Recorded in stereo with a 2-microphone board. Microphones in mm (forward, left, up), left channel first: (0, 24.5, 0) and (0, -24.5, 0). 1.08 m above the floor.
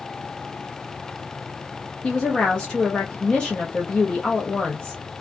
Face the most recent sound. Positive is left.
turn(degrees=20)  # may be behind; listen again after turning